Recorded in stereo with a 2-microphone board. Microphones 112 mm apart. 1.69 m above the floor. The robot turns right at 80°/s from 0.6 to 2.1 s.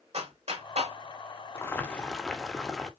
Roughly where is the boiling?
Behind left.